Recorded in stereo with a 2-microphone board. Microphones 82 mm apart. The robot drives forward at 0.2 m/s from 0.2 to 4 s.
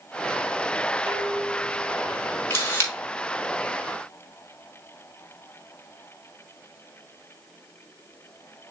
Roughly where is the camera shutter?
Left.